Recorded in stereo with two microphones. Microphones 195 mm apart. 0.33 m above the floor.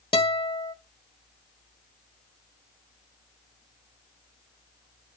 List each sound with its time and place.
0.1 s a guitar: 30° left (ahead or behind), 1.2 m